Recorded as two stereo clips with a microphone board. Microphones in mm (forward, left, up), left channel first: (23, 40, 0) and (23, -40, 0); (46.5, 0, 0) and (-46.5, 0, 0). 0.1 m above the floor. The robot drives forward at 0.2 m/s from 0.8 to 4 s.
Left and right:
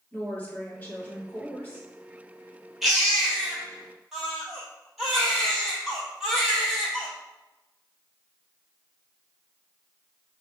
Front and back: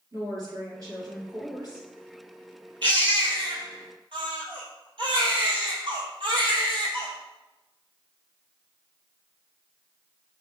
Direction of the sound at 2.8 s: 175° right.